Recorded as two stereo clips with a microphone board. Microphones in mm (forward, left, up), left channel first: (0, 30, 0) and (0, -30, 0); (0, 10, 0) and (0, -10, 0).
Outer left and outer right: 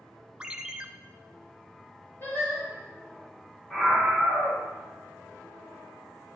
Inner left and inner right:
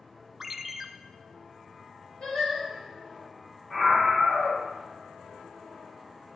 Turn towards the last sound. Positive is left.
turn(degrees=25)  # may be behind; listen again after turning